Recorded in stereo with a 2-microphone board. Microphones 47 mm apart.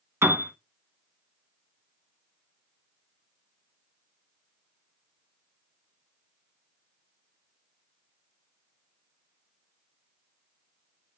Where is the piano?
60° right (ahead or behind), 0.9 m.